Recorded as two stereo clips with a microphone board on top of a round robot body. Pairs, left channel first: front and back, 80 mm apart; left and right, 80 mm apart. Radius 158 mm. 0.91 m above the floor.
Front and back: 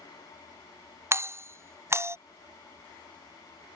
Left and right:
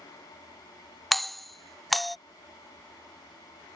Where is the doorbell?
Straight behind.